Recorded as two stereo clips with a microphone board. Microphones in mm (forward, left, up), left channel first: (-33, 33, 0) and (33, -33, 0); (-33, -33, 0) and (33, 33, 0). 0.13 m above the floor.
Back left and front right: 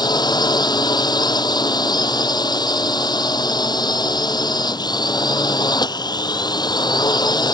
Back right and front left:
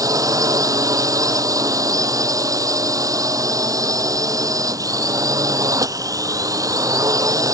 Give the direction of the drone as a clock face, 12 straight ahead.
9 o'clock.